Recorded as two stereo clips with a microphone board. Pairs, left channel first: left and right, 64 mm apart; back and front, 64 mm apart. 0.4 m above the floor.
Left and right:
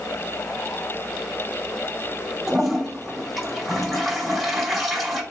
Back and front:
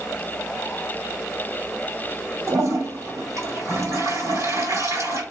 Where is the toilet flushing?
5° right, 1.9 m.